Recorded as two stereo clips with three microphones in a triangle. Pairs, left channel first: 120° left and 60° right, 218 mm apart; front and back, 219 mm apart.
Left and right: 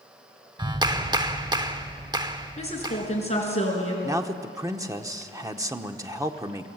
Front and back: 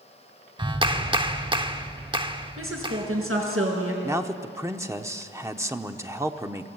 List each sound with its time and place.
0.6 s a clap: 120° right, 0.8 m
2.6 s a woman speaking: straight behind, 5 m
4.0 s a man speaking: 115° right, 0.9 m